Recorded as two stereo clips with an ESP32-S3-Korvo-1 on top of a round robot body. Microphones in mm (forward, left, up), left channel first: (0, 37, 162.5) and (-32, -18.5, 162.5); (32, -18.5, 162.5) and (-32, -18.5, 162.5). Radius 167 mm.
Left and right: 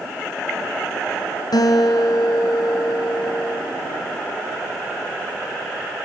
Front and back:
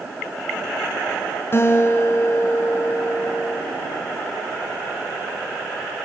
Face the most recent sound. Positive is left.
turn(degrees=50)